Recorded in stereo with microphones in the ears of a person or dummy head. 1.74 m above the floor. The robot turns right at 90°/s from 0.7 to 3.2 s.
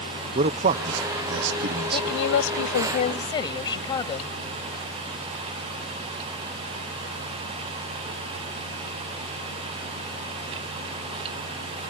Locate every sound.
0.3 s a man speaking: 40° right (ahead or behind); by 2.2 s 5° right (ahead or behind)
1.9 s a woman speaking: 40° left; by 4.4 s 155° left